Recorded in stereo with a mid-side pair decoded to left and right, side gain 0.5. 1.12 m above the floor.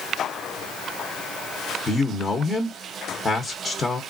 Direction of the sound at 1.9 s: 30° left.